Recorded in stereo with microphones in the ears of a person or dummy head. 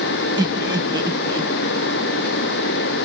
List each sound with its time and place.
0.4 s laughter: 25° right (ahead or behind), 1.3 m